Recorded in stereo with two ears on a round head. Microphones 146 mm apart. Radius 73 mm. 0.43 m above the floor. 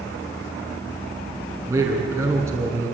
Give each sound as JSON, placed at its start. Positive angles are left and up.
{"t": 1.7, "sound": "a man speaking", "side_deg": -15, "distance_m": 5.0}